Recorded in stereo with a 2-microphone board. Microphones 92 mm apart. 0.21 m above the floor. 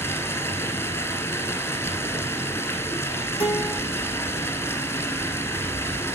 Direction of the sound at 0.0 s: 30° left (ahead or behind).